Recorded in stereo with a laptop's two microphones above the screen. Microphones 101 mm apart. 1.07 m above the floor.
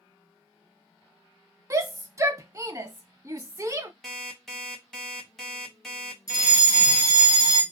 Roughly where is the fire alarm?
Left.